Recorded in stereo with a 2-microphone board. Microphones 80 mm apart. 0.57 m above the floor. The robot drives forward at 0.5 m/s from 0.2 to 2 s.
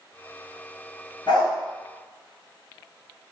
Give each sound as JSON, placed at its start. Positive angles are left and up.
{"t": 1.3, "sound": "a dog barking", "side_deg": 65, "distance_m": 1.8}